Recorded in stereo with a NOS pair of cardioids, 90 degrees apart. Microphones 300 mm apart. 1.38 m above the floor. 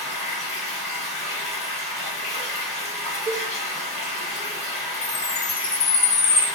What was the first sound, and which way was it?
Running water, 20° left.